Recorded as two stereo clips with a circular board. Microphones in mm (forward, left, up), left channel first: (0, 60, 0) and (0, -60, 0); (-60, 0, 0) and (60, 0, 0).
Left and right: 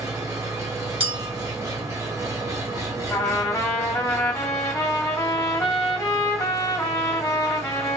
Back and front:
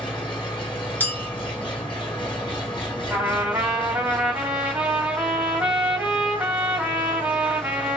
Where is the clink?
110° right, 0.9 m.